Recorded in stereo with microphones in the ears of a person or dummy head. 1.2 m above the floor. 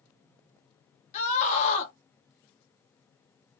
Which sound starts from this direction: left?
A scream, at 1.1 s.